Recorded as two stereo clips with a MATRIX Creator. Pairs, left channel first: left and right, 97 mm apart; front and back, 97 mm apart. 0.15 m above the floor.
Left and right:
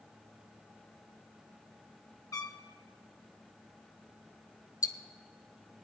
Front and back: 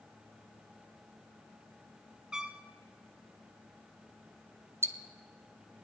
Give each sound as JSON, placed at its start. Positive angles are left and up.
{"t": 2.3, "sound": "a trumpet", "azimuth_deg": 105, "distance_m": 0.5}
{"t": 4.8, "sound": "ticking", "azimuth_deg": 125, "distance_m": 0.6}